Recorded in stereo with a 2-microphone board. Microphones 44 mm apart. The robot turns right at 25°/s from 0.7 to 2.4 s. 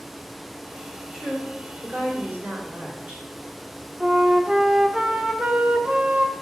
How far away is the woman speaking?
About 3.5 m.